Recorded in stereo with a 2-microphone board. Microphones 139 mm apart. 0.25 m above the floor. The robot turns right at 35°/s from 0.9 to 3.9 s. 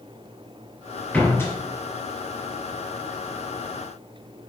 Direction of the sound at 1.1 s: 10° left (ahead or behind).